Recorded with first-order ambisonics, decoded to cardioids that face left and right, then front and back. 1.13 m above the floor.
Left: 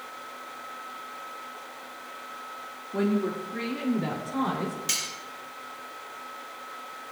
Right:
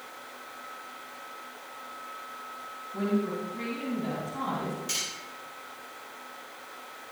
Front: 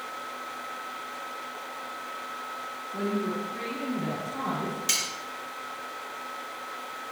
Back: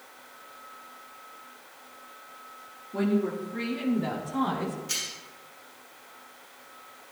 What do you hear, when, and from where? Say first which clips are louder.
2.9 s a woman speaking: left 3 dB, back 3 dB; 110° left, 1.6 m; by 4.8 s 105° left, 3 m
4.9 s cutlery clinking: left 3 dB, front 6 dB; 30° left, 3 m